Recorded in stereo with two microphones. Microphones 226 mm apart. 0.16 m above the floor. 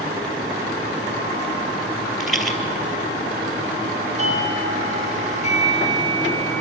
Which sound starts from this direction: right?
A doorbell, at 4.2 s.